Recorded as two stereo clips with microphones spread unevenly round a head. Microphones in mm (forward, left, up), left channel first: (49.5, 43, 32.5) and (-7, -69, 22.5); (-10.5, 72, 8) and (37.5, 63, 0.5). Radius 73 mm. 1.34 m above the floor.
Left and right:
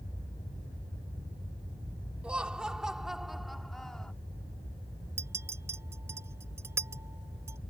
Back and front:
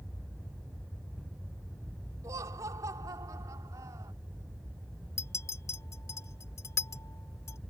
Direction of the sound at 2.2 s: 35° right.